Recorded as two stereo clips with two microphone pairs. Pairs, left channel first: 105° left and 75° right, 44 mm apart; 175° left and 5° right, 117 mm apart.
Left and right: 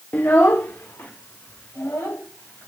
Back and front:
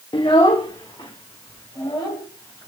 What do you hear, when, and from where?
0.1 s a child speaking: 140° left, 0.6 m; by 2.7 s 125° left, 4 m